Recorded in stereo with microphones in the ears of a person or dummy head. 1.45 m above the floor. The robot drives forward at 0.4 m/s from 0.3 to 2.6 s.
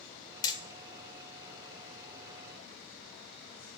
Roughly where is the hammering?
Left.